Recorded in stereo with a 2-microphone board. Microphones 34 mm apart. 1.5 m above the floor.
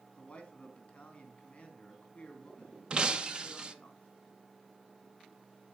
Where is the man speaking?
30° left (ahead or behind), 3 m.